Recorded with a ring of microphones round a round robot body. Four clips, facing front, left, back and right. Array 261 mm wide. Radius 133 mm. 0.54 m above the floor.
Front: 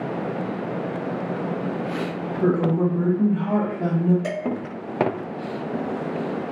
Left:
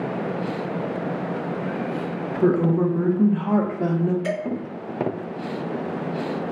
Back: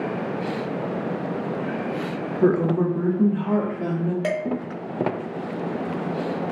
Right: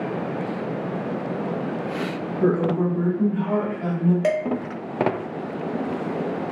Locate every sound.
2.4 s a woman speaking: 170° left, 0.6 m; by 4.1 s 85° left, 1.1 m
4.2 s dishes clattering: 120° right, 1.0 m